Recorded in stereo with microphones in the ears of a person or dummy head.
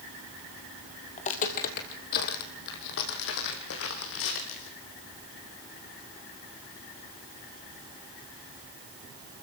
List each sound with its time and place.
1.2 s footsteps: 40° left (ahead or behind), 2.0 m; by 4.7 s 75° left (ahead or behind), 5 m